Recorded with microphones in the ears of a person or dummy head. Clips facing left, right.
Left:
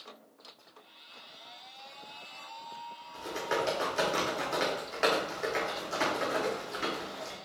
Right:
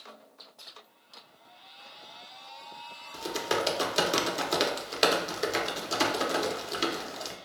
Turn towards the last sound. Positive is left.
turn(degrees=-45)  # may be behind; listen again after turning